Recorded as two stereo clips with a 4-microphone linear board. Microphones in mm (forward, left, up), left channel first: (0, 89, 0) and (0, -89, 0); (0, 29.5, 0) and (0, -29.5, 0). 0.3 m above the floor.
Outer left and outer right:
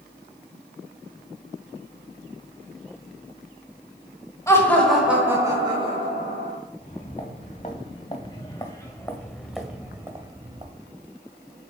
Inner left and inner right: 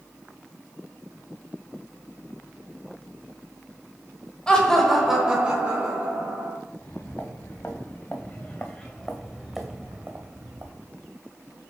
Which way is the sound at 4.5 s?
15° left (ahead or behind).